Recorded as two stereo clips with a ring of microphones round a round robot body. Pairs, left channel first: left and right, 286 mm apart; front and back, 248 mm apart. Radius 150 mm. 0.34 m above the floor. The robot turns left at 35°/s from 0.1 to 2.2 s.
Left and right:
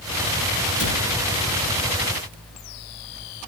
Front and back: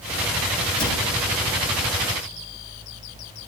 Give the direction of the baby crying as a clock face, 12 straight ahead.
No baby crying in this recording.